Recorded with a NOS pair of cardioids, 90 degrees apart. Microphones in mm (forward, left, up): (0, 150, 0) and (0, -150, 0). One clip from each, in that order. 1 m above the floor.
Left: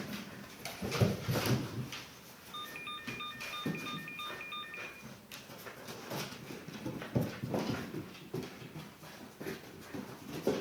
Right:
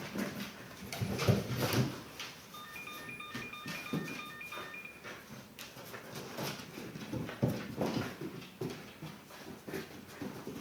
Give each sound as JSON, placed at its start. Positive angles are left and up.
{"t": 2.5, "sound": "a ringtone", "azimuth_deg": 30, "distance_m": 2.0}